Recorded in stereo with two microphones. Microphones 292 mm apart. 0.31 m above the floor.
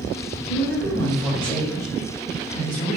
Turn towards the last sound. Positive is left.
turn(degrees=20)  # may be behind; listen again after turning